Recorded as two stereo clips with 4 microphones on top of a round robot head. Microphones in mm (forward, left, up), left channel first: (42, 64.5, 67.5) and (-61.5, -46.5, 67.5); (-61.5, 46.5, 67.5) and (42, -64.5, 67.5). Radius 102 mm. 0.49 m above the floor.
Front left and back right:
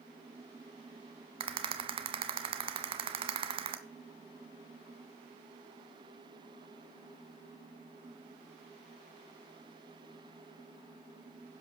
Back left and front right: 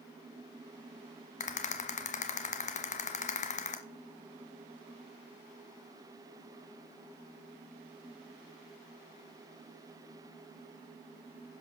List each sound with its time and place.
1.4 s a rattle: 175° left, 1.2 m